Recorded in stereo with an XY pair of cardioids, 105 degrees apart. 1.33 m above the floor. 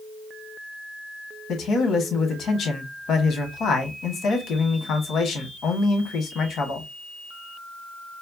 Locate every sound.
1.5 s a man speaking: 65° left, 1.3 m